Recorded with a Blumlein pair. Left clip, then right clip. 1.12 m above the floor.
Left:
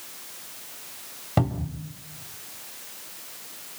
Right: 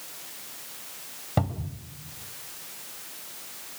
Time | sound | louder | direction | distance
1.4 | a cupboard door | left 3 dB | 10° left | 2 m